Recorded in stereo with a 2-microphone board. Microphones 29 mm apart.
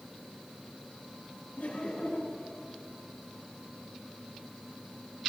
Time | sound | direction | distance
1.6 | laughter | 50° left (ahead or behind) | 10 m